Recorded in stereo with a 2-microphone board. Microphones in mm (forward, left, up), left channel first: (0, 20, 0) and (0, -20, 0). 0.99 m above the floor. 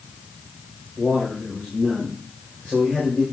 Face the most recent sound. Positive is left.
turn(degrees=35)  # may be behind; listen again after turning